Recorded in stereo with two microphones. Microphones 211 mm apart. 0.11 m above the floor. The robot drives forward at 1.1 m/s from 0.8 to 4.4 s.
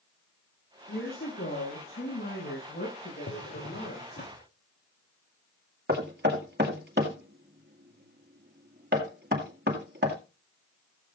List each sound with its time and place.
0.9 s a woman speaking: 65° left (ahead or behind), 7 m; by 4.2 s 45° left (ahead or behind), 9 m
3.3 s a drawer: 65° left (ahead or behind), 2.5 m; by 4.4 s 45° left (ahead or behind), 3 m
5.9 s knocking: 55° right (ahead or behind), 2 m